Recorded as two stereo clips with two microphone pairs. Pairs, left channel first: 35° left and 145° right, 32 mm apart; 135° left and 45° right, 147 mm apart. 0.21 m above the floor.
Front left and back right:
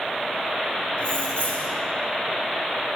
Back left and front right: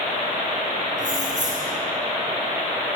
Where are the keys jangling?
15° right, 4 m.